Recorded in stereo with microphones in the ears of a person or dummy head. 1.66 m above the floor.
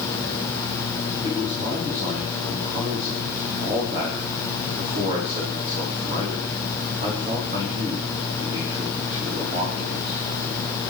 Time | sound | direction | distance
1.2 | a man speaking | 35° right (ahead or behind) | 4 m